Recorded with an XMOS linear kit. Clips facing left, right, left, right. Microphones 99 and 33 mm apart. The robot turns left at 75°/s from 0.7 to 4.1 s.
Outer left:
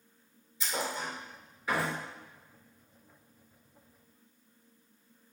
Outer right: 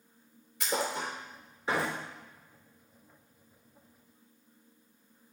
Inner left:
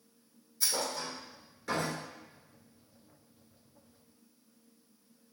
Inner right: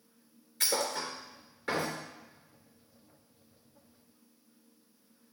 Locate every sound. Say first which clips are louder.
0.6 s a thud: outer right 3 dB, inner right 2 dB; 70° right (ahead or behind), 1.8 m; by 2.0 s 10° right (ahead or behind), 1.8 m